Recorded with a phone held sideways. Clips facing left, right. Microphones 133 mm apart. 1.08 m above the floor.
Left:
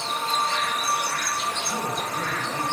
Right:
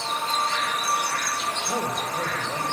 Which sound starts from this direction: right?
A man speaking, at 1.6 s.